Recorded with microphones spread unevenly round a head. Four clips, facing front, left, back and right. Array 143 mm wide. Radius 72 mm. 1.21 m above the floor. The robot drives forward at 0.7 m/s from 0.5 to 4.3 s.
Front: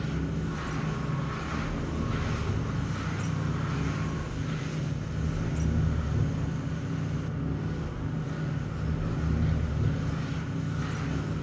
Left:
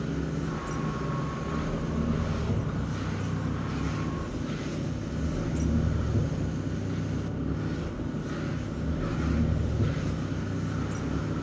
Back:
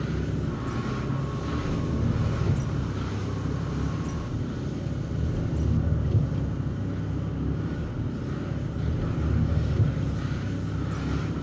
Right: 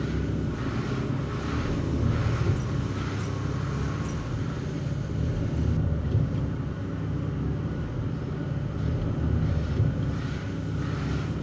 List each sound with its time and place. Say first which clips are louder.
0.0 s an engine running: right 1 dB, back 2 dB; 120° right, 6.5 m; by 11.4 s 135° right, 8.5 m